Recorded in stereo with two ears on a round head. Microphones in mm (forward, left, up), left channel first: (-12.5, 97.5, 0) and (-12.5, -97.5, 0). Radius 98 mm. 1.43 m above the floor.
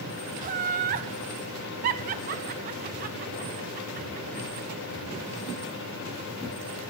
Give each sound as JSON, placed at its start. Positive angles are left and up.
{"t": 0.4, "sound": "laughter", "side_deg": -35, "distance_m": 0.6}